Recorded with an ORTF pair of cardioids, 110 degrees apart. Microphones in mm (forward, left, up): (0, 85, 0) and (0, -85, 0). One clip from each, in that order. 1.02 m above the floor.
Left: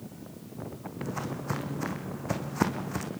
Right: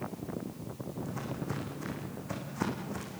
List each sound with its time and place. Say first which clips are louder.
1.0 s footsteps: left 5 dB; 45° left, 4 m